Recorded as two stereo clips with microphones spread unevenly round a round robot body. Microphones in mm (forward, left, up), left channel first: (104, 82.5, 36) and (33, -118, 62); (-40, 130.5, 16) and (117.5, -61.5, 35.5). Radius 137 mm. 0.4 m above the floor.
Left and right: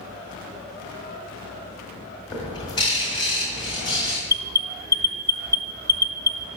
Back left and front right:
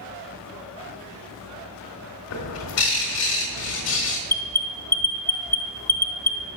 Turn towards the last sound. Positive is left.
turn(degrees=80)